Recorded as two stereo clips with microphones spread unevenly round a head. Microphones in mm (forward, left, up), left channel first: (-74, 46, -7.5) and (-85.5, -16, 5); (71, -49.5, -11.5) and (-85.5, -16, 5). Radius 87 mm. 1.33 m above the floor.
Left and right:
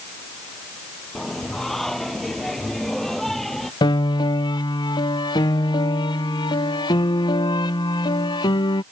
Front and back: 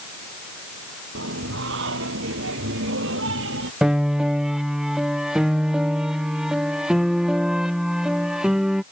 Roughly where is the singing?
Behind.